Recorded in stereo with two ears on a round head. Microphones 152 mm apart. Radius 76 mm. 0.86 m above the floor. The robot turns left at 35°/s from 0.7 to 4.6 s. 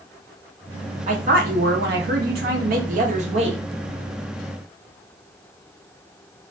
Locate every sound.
1.1 s a woman speaking: 55° right, 0.8 m; by 3.6 s 145° right, 0.8 m